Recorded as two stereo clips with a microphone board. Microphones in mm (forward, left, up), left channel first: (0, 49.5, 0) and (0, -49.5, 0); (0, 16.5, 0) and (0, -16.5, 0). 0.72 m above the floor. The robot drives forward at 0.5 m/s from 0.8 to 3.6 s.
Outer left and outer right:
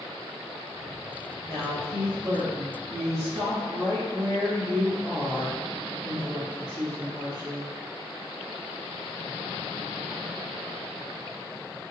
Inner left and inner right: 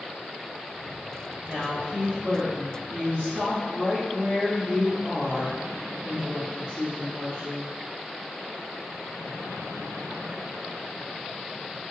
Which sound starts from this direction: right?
A woman speaking, at 1.5 s.